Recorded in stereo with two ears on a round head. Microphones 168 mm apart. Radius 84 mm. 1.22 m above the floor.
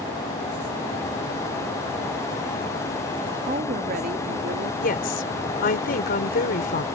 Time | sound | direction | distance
3.5 | a woman speaking | 45° right (ahead or behind) | ?
4.8 | a woman speaking | 50° left (ahead or behind) | ?